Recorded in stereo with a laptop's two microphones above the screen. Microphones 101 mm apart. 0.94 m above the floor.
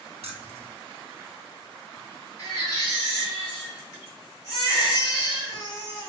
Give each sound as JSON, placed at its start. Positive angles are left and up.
{"t": 0.2, "sound": "keys jangling", "side_deg": -75, "distance_m": 0.6}
{"t": 2.4, "sound": "a baby crying", "side_deg": 35, "distance_m": 1.2}